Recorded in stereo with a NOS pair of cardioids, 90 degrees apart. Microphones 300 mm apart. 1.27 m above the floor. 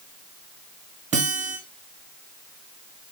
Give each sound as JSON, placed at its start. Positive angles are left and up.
{"t": 1.1, "sound": "a guitar", "azimuth_deg": -25, "distance_m": 0.9}